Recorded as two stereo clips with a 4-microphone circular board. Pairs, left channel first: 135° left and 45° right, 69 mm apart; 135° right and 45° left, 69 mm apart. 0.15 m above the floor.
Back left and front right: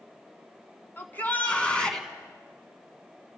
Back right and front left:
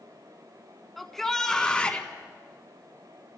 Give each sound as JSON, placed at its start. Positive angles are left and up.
{"t": 1.0, "sound": "a shout", "azimuth_deg": 135, "distance_m": 1.7}